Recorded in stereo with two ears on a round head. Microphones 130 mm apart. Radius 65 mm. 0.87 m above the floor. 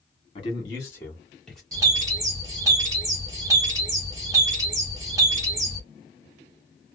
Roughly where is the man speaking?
Left.